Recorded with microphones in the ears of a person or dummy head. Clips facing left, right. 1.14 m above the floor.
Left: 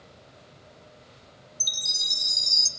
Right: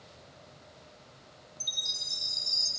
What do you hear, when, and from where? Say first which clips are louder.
1.6 s a chime: left 3 dB; 70° left (ahead or behind), 3 m